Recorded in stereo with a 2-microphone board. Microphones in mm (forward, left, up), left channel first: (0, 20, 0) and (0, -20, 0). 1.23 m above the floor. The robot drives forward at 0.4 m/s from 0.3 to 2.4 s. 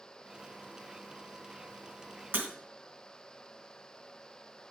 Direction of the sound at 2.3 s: 55° right (ahead or behind).